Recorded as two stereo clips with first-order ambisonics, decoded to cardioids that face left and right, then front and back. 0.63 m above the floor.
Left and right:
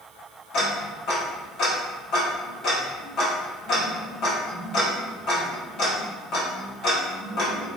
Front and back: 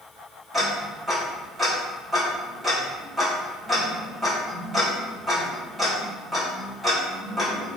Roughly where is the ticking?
Left.